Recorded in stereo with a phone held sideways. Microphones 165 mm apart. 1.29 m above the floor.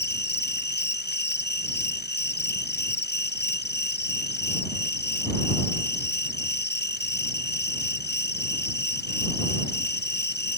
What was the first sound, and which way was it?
An insect, 70° left (ahead or behind).